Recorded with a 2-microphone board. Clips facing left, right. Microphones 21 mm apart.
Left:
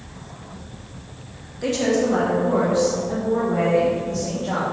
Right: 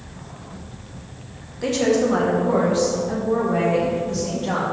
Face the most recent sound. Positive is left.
turn(degrees=-35)  # may be behind; listen again after turning